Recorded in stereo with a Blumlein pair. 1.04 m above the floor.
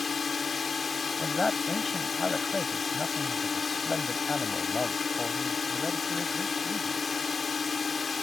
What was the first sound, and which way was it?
A drone, 15° left.